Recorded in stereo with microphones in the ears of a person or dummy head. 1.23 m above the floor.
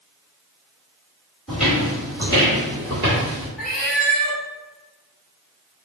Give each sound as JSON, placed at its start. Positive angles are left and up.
{"t": 1.5, "sound": "footsteps", "side_deg": 0, "distance_m": 1.6}
{"t": 3.6, "sound": "a cat meowing", "side_deg": 0, "distance_m": 0.5}